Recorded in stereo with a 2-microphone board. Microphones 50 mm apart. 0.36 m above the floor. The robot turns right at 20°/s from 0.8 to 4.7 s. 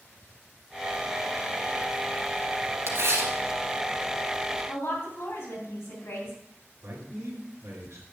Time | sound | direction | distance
2.9 | tearing paper | 65° right (ahead or behind) | 2.5 m
4.7 | a woman speaking | 65° left (ahead or behind) | 4.5 m
6.8 | a man speaking | 45° right (ahead or behind) | 3 m